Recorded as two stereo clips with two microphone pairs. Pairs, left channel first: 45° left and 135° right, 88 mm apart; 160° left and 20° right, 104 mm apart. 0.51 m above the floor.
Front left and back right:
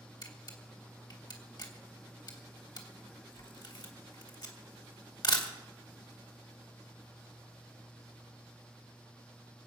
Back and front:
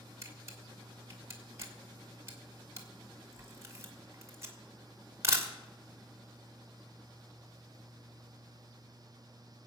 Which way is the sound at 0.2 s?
35° left.